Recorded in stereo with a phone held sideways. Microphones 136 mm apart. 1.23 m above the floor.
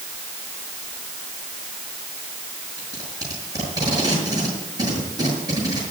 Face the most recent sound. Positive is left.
turn(degrees=-30)  # may be behind; listen again after turning